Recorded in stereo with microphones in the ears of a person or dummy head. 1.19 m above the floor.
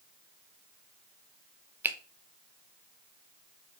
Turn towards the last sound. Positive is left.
turn(degrees=-15)  # may be behind; listen again after turning